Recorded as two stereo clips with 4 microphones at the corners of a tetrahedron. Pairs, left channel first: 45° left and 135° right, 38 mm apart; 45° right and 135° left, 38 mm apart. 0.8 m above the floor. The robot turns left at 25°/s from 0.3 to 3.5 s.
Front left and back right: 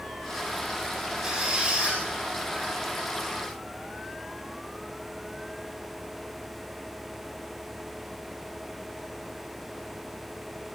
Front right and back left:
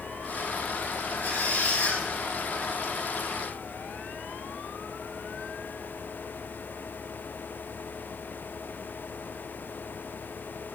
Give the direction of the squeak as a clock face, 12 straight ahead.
2 o'clock.